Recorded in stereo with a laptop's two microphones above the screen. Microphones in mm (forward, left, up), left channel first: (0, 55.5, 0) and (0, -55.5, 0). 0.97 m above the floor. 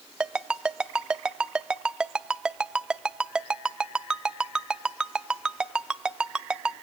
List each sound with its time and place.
0.2 s a ringtone: 5° right (ahead or behind), 0.5 m